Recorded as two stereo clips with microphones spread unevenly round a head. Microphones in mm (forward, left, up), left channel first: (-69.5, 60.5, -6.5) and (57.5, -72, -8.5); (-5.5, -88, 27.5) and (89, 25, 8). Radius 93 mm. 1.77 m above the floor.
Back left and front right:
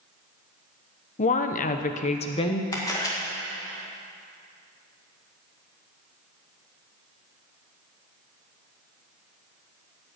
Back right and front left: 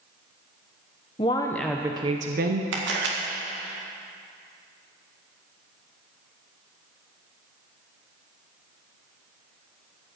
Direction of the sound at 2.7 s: 60° left.